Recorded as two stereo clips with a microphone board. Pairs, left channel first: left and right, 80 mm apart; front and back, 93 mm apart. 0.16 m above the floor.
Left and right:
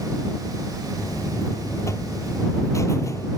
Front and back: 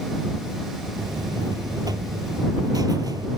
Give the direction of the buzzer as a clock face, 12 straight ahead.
7 o'clock.